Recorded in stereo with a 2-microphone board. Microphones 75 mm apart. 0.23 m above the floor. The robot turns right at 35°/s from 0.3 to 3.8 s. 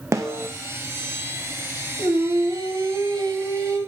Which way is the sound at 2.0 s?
120° right.